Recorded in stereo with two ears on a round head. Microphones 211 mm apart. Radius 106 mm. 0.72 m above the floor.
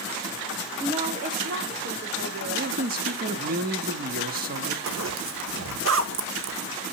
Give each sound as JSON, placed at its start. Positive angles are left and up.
{"t": 0.8, "sound": "a woman speaking", "side_deg": -15, "distance_m": 0.6}
{"t": 2.5, "sound": "a man speaking", "side_deg": -40, "distance_m": 0.9}
{"t": 4.9, "sound": "a zipper", "side_deg": -65, "distance_m": 0.8}